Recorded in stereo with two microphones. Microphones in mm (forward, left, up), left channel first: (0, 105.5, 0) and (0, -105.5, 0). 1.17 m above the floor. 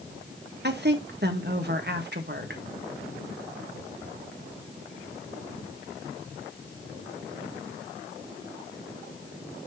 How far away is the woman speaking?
About 1.3 m.